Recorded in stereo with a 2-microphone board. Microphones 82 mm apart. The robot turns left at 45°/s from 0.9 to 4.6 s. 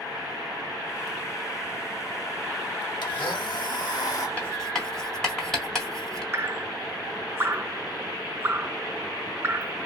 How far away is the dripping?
About 0.6 m.